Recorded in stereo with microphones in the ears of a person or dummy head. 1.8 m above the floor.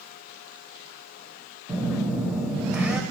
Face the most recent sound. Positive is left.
turn(degrees=-5)  # may be behind; listen again after turning